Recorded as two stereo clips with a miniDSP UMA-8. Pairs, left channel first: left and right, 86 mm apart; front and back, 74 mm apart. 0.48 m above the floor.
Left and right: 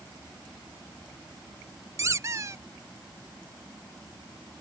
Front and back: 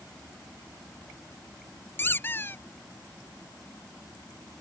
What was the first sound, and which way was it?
A squeak, 50° right.